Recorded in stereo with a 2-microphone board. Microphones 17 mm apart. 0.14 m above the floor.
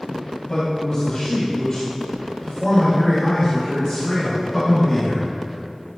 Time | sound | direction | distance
0.1 | a man speaking | 45° left (ahead or behind) | 2.5 m